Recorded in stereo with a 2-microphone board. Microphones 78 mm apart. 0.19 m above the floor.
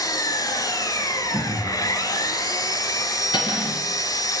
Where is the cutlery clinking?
65° left (ahead or behind), 2 m.